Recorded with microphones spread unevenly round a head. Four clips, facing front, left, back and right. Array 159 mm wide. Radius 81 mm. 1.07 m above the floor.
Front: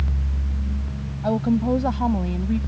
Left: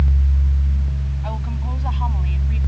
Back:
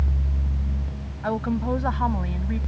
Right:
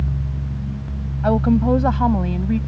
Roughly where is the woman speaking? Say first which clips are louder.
Right 17 dB, front 4 dB; right.